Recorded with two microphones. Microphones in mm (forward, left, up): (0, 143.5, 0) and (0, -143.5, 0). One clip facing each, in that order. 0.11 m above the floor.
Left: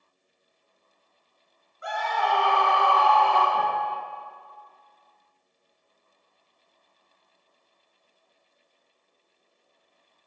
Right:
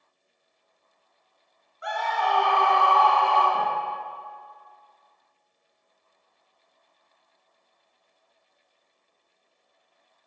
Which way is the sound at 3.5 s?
10° right (ahead or behind).